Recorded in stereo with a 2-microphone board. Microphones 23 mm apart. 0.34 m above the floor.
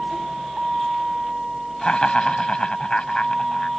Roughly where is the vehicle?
Centre.